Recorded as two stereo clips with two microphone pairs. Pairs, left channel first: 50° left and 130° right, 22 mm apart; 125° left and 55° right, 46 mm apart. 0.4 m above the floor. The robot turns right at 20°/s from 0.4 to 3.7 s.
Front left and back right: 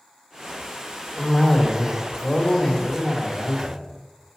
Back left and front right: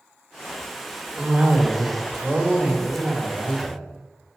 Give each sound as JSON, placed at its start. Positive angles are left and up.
{"t": 1.2, "sound": "a cough", "azimuth_deg": -15, "distance_m": 1.4}